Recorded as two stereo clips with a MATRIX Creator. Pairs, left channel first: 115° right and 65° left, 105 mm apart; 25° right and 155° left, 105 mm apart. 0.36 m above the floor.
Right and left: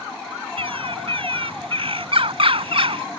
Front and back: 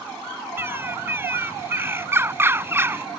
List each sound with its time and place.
0.6 s a bird: 90° left